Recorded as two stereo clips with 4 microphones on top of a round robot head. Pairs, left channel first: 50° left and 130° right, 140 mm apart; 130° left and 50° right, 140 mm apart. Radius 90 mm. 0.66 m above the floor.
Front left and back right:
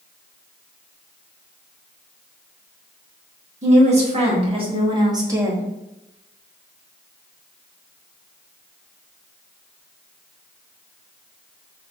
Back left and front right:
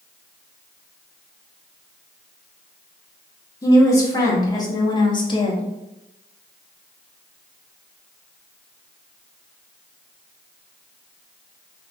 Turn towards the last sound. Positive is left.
turn(degrees=155)